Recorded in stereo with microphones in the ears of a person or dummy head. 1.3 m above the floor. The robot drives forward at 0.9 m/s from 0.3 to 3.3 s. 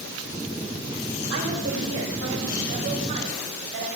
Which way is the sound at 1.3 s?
70° right (ahead or behind).